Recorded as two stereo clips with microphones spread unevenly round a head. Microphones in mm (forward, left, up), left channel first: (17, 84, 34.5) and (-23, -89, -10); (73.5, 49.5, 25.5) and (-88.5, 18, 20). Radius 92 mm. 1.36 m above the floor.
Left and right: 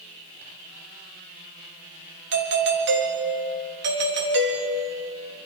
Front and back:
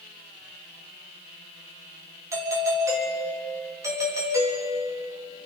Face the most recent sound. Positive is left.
turn(degrees=-95)